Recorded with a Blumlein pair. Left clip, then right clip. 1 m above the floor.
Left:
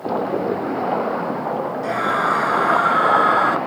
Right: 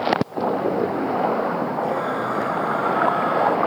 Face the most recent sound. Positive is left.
turn(degrees=60)